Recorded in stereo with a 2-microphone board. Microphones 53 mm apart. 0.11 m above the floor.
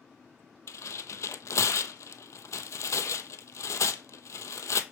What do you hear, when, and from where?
0.7 s tearing paper: 80° left, 0.5 m